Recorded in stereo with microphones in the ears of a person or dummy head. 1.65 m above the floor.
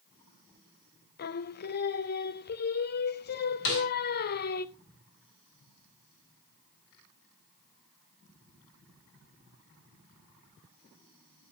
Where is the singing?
50° left (ahead or behind), 0.5 m.